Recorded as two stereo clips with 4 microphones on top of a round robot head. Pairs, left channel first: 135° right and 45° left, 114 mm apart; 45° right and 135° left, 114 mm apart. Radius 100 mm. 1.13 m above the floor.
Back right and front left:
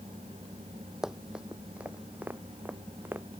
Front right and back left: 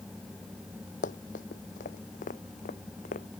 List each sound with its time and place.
1.0 s running footsteps: 45° right; by 3.2 s 30° right